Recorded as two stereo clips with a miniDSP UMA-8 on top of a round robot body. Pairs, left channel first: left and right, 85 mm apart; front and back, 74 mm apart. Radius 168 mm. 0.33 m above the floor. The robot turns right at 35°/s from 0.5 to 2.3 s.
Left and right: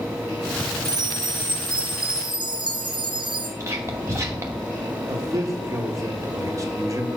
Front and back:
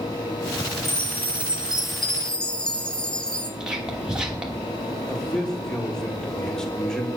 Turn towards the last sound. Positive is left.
turn(degrees=-75)